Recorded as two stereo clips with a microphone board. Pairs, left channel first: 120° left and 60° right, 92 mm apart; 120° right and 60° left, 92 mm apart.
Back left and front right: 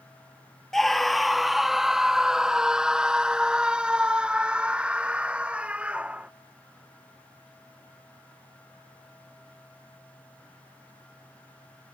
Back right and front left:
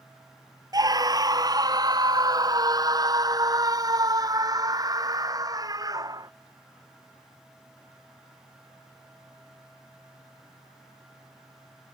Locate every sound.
0.7 s a scream: 35° left; by 6.3 s 15° left